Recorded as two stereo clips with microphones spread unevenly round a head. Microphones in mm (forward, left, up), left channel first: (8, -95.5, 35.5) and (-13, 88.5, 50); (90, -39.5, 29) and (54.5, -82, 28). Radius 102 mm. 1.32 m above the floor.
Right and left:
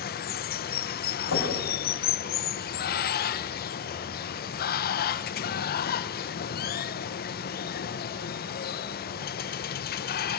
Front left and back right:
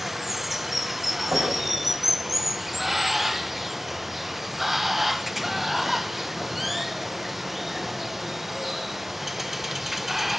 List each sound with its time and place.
0.0 s running water: 45° right, 1.1 m
1.3 s knocking: 90° right, 7 m